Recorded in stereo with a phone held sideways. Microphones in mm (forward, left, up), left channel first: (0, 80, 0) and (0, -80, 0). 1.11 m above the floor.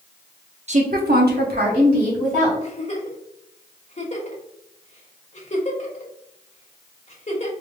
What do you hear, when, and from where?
0.7 s a woman speaking: 45° right (ahead or behind), 0.8 m; by 2.5 s 55° right (ahead or behind), 3 m
2.6 s a giggle: 40° left (ahead or behind), 1.0 m